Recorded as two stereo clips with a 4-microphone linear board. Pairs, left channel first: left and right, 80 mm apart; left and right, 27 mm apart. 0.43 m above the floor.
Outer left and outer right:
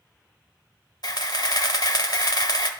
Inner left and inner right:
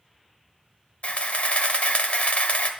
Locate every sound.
1.0 s a camera shutter: 55° left (ahead or behind), 1.0 m